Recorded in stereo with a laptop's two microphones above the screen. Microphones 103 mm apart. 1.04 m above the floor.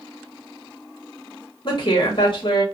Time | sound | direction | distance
1.6 | a woman speaking | 50° left (ahead or behind) | 1.0 m